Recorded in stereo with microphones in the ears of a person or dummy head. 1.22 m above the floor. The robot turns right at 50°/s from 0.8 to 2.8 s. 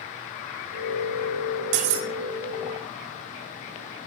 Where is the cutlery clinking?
60° right (ahead or behind), 1.1 m; by 2.1 s 75° right (ahead or behind), 1.1 m.